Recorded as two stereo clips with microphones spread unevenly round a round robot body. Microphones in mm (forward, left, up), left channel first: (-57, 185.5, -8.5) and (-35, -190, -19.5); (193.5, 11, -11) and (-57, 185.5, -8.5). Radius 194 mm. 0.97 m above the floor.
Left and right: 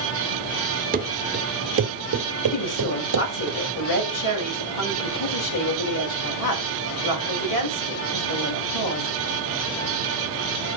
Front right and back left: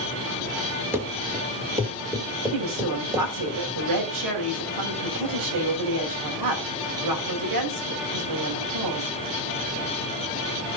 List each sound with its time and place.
0.9 s running footsteps: 140° right, 1.0 m; by 3.5 s 135° right, 2 m
2.5 s a woman speaking: 135° left, 5.5 m